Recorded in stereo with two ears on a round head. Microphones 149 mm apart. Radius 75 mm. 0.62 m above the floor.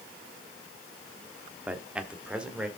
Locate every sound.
1.7 s a man speaking: 10° right (ahead or behind), 1.2 m; by 2.7 s 5° right (ahead or behind), 1.9 m